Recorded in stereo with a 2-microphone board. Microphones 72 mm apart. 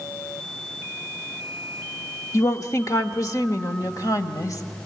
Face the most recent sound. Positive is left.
turn(degrees=60)  # may be behind; listen again after turning